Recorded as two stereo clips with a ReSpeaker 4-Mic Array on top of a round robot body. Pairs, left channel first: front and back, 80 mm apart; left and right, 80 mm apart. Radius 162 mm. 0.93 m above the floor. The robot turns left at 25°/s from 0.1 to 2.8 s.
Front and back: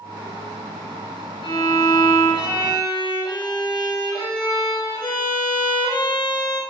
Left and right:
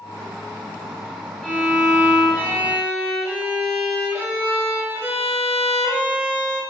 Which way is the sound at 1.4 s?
5° left.